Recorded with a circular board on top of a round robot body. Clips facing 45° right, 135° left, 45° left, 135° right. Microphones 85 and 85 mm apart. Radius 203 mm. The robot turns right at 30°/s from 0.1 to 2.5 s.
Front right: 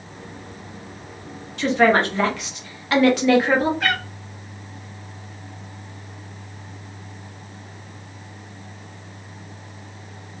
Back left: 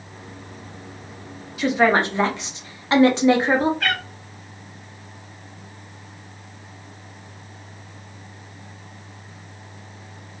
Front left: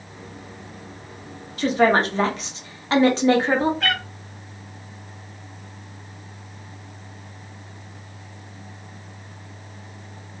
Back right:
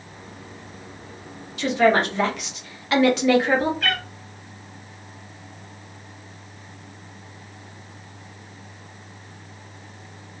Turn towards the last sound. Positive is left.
turn(degrees=30)